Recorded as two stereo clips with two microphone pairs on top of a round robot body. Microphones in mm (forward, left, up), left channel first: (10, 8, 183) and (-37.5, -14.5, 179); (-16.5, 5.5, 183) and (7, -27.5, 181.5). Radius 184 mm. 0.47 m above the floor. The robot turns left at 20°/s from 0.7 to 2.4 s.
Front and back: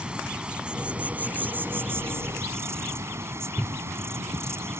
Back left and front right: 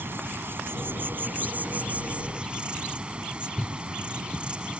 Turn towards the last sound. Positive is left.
turn(degrees=-120)